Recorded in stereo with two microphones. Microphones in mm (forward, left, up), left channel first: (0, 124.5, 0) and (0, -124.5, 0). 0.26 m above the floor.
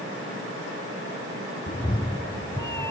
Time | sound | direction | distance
1.7 | a cat meowing | 30° left (ahead or behind) | ?